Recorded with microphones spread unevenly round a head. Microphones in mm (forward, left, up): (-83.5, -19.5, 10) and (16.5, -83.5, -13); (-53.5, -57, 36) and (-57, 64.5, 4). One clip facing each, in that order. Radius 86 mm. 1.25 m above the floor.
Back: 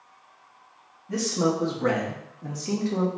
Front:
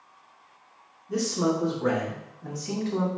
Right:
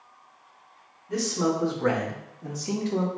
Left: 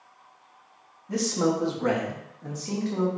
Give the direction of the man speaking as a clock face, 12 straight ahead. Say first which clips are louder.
Back 1 dB, left 1 dB; 9 o'clock.